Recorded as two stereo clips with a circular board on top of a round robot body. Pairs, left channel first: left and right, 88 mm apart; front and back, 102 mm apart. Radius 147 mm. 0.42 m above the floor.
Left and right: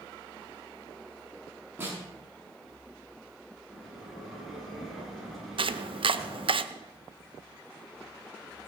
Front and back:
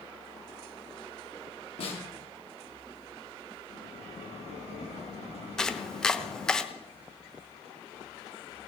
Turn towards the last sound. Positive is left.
turn(degrees=-85)